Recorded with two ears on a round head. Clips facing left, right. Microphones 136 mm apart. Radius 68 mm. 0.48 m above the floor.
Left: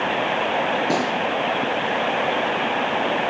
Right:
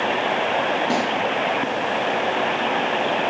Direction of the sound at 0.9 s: Centre (ahead or behind).